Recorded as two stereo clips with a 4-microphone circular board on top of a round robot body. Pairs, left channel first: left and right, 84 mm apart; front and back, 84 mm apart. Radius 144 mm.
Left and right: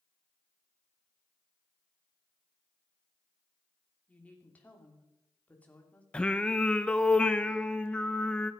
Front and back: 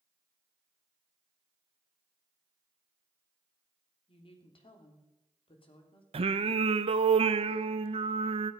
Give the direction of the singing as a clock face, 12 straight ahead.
6 o'clock.